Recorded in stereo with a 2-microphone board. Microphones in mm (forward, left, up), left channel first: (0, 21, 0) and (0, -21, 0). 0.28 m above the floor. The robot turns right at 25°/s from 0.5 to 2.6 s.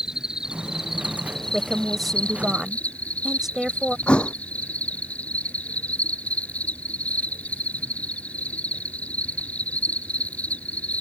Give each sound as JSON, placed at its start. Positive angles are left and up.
{"t": 0.0, "sound": "an insect", "azimuth_deg": -20}
{"t": 1.5, "sound": "a woman speaking", "side_deg": 5}
{"t": 4.1, "sound": "a thud", "side_deg": 25}